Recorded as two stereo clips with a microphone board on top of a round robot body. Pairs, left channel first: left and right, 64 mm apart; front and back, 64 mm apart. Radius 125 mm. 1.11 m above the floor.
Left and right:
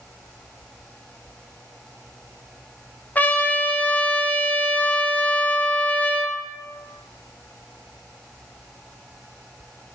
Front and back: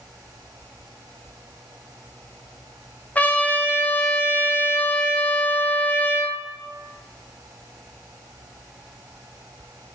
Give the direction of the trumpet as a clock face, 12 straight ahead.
10 o'clock.